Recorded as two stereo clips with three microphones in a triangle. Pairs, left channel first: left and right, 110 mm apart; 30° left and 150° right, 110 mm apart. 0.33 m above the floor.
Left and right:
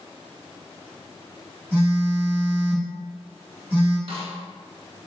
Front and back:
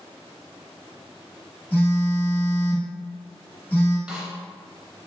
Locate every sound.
1.7 s a phone buzzing: 35° right, 1.0 m
4.1 s a snare drum: 70° right, 0.6 m